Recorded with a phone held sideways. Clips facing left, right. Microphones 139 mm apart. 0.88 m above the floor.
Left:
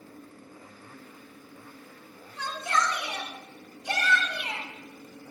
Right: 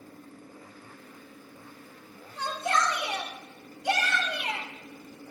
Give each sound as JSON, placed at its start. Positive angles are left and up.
{"t": 2.4, "sound": "a shout", "side_deg": -60, "distance_m": 3.0}